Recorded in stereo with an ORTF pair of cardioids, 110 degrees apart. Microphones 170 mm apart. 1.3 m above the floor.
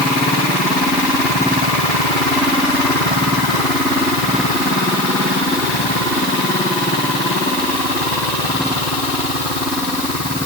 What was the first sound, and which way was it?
Only background noise.